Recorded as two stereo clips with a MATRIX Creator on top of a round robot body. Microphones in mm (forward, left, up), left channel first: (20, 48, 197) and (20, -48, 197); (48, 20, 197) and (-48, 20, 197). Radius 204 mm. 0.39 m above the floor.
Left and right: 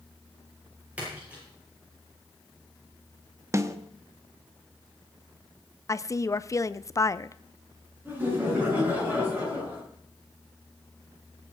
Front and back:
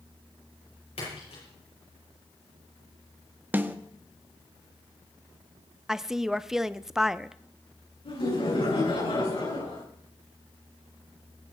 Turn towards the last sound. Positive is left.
turn(degrees=-20)